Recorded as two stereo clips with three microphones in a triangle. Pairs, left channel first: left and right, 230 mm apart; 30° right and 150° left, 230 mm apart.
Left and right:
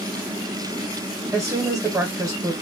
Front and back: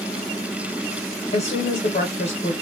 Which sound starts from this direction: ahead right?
A woman speaking, at 1.3 s.